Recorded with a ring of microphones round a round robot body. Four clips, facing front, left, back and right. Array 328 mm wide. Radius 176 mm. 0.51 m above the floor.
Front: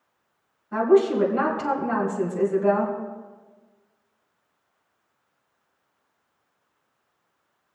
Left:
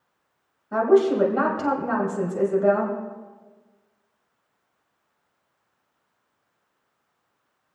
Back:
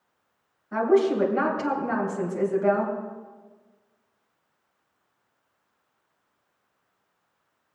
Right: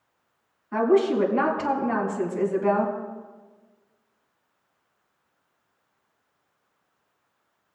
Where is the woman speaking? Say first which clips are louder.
Left 2 dB, front 2 dB; 95° left, 3 m.